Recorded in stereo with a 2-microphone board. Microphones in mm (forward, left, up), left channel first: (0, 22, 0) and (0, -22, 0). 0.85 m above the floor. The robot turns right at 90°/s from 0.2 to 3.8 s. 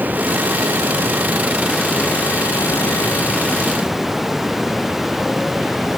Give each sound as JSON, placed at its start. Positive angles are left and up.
{"t": 0.0, "sound": "running water", "azimuth_deg": -135}